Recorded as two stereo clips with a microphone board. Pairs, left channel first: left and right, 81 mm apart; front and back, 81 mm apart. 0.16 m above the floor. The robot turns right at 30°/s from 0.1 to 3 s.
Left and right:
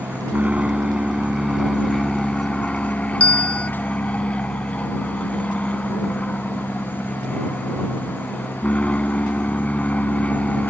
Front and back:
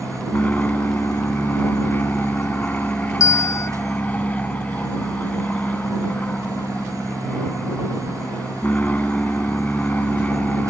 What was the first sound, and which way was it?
An aircraft, 50° right.